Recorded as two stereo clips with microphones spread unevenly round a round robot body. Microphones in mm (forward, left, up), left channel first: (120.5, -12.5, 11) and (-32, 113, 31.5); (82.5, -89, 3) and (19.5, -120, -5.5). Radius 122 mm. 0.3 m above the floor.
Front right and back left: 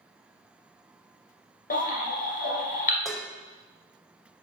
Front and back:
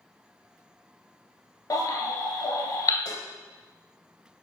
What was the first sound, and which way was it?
A baby crying, 5° left.